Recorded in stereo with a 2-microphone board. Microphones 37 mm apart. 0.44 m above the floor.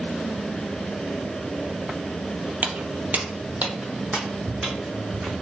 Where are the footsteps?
50° right (ahead or behind), 0.6 m; by 5.3 s 20° right (ahead or behind), 1.9 m.